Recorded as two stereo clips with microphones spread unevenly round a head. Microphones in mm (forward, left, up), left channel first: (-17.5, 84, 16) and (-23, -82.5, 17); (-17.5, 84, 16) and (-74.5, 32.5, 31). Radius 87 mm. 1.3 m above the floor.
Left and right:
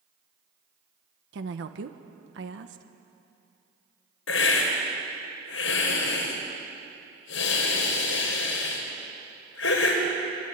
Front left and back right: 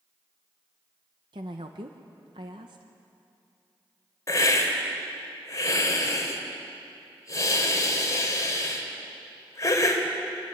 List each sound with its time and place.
1.3 s a woman speaking: 90° right, 1.4 m
4.3 s a hiss: 90° left, 4.5 m